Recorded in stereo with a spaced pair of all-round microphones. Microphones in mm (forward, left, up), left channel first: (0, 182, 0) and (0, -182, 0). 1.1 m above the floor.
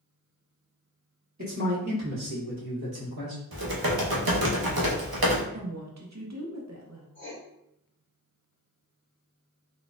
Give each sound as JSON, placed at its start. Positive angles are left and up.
{"t": 1.4, "sound": "a man speaking", "side_deg": -50, "distance_m": 1.8}
{"t": 3.5, "sound": "typing on a keyboard", "side_deg": -80, "distance_m": 0.7}
{"t": 5.5, "sound": "a woman speaking", "side_deg": -50, "distance_m": 0.7}
{"t": 7.2, "sound": "writing", "side_deg": 30, "distance_m": 1.1}